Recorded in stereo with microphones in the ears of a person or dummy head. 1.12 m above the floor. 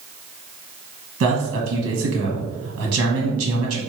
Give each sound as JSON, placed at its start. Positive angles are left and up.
{"t": 1.2, "sound": "a man speaking", "side_deg": -75, "distance_m": 1.2}